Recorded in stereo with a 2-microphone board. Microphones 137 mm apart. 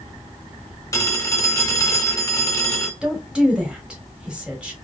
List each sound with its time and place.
0.9 s a phone ringing: 20° left (ahead or behind), 0.8 m
3.0 s a woman speaking: 5° right (ahead or behind), 1.3 m